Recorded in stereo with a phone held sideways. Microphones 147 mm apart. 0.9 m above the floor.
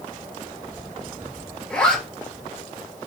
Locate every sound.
1.7 s a zipper: 5° left (ahead or behind), 4 m